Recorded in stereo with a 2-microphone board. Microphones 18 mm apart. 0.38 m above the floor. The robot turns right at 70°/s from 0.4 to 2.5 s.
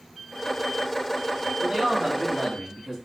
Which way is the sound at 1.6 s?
70° right.